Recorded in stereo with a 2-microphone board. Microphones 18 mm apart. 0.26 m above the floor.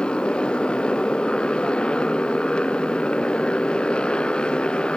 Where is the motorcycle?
60° left (ahead or behind).